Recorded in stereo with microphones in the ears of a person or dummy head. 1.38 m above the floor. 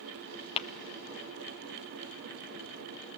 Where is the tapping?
35° left (ahead or behind), 0.7 m.